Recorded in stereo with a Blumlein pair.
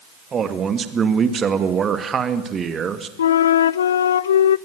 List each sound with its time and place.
0.3 s a man speaking: 20° right, 2 m
3.2 s a flute: 65° left, 0.6 m